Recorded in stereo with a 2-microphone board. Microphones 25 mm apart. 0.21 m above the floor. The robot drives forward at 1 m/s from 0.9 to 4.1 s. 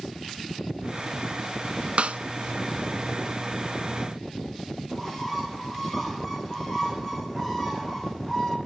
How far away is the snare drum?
About 0.6 m.